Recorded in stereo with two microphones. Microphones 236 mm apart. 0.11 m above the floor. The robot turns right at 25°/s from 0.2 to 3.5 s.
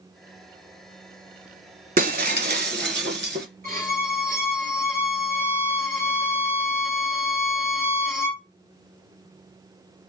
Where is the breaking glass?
120° right, 0.6 m; by 3.5 s 85° right, 0.6 m.